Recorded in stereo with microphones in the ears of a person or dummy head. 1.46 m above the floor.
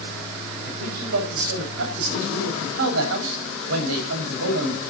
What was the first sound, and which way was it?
A man speaking, 75° right (ahead or behind).